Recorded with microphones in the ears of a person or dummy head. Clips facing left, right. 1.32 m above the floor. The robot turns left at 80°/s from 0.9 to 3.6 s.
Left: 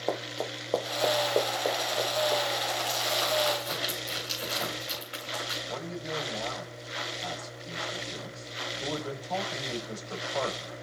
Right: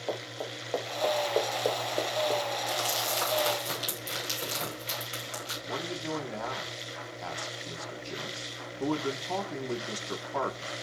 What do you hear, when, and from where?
0.1 s running footsteps: 60° left (ahead or behind), 3 m; by 2.4 s 60° right (ahead or behind), 2.5 m
2.7 s crumpling: 80° right, 6 m; by 5.6 s 25° right (ahead or behind), 6 m
5.7 s a man speaking: 80° right, 2.5 m